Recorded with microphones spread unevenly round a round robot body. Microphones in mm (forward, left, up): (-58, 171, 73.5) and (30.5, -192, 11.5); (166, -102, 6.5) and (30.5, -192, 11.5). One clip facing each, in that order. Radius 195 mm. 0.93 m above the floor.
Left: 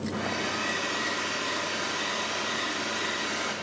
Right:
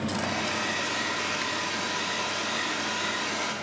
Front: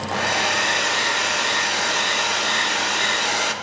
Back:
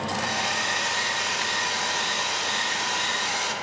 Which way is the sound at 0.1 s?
5° left.